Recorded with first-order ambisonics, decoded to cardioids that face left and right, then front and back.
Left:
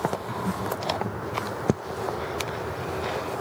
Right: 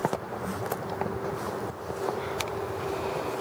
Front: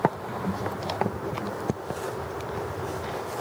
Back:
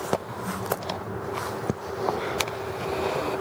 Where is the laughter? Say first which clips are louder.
Left 3 dB, front 1 dB; 75° left, 1.0 m; by 1.6 s 5° left, 1.6 m.